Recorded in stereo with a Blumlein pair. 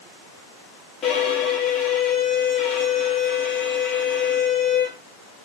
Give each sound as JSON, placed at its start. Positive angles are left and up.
{"t": 1.0, "sound": "a violin", "azimuth_deg": 25, "distance_m": 2.5}